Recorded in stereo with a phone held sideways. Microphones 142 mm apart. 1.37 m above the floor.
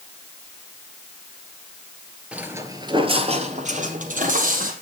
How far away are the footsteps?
About 1.6 m.